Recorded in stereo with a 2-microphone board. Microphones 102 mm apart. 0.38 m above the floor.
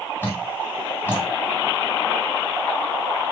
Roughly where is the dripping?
Left.